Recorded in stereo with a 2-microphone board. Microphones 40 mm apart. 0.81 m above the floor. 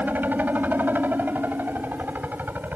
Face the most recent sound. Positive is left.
turn(degrees=-50)  # may be behind; listen again after turning